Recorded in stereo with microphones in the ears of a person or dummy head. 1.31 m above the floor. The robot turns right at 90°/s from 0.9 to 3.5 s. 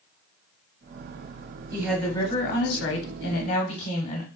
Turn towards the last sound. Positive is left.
turn(degrees=140)